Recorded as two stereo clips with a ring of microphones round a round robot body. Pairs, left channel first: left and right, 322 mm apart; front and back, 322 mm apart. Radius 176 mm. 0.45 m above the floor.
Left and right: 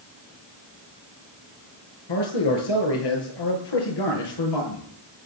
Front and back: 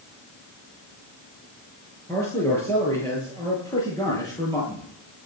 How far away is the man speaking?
About 7.5 m.